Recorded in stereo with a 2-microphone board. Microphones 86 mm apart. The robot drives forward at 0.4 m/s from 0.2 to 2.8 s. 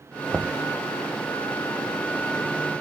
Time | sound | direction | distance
0.3 | knocking | 10° right (ahead or behind) | 0.6 m